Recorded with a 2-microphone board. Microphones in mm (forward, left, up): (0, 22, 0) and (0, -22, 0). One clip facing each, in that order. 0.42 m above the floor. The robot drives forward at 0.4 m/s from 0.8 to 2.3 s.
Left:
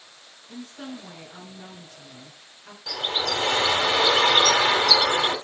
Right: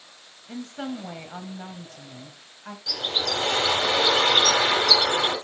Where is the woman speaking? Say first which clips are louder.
Right 5 dB; 60° right (ahead or behind), 2.5 m; by 2.8 s 50° right (ahead or behind), 2.5 m.